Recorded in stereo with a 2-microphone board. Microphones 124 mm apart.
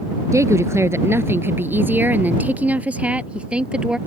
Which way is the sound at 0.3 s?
25° right (ahead or behind).